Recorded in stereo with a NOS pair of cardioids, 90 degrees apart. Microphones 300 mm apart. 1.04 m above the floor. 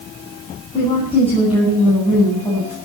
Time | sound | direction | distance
0.7 | a woman speaking | 20° left | 10 m